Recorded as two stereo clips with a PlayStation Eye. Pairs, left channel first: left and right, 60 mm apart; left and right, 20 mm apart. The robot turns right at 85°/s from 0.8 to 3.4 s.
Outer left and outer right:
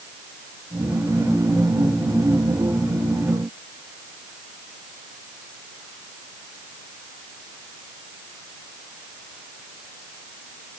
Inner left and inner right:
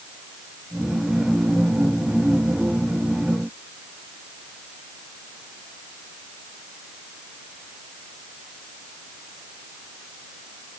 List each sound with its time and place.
Only background noise.